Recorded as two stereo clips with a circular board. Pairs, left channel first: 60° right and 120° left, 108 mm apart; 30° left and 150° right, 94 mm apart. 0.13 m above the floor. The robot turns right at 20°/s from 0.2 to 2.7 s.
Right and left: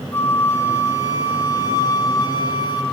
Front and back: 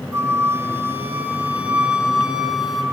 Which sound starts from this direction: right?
A flute, at 0.1 s.